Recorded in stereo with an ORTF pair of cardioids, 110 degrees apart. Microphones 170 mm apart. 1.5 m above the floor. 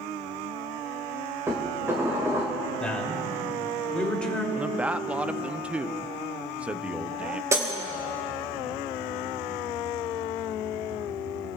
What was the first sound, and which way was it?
Dishes clattering, 15° right.